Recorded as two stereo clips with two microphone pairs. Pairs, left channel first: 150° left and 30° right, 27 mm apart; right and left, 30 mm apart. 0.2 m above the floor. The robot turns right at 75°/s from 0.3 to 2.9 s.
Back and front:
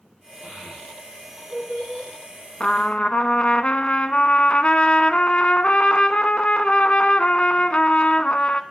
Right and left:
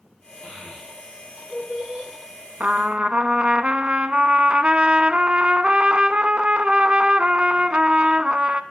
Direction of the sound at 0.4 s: 65° right.